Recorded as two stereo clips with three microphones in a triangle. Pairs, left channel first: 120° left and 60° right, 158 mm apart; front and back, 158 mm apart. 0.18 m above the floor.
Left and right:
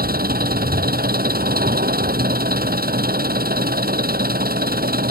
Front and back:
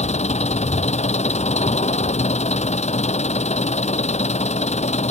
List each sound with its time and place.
0.0 s an engine running: 45° right